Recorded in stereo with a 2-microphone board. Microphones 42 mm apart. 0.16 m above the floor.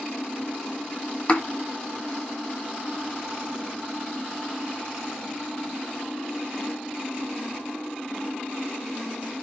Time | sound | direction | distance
1.3 | a thud | 25° left (ahead or behind) | 0.9 m